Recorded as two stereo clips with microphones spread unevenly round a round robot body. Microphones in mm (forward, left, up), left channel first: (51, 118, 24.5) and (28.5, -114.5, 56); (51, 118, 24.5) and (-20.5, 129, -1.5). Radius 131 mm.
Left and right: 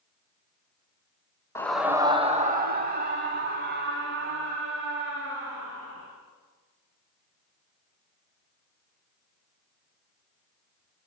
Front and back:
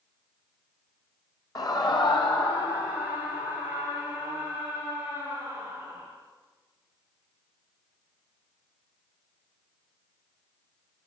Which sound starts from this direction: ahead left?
A scream, at 1.6 s.